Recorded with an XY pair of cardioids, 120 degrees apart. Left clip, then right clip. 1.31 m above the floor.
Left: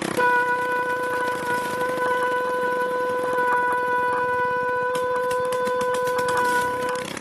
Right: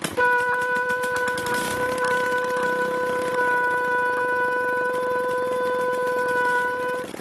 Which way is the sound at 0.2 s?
Straight ahead.